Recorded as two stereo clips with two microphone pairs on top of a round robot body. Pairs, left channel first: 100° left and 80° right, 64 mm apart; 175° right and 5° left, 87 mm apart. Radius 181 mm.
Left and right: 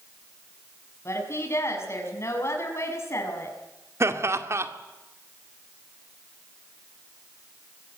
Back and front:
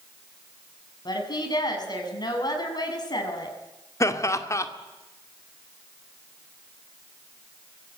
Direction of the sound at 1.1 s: 145° left.